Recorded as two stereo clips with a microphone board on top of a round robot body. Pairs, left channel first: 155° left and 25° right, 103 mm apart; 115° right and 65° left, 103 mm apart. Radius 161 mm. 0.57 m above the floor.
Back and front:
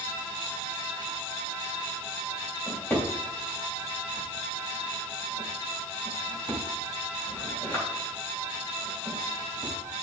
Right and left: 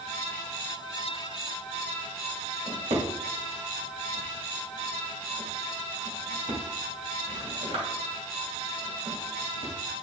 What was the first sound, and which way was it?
A drawer, 90° left.